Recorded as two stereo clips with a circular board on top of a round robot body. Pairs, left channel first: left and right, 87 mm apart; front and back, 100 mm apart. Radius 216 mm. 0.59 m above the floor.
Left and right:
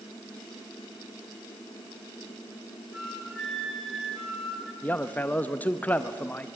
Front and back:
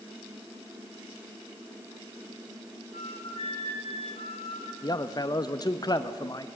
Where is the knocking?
No knocking in this recording.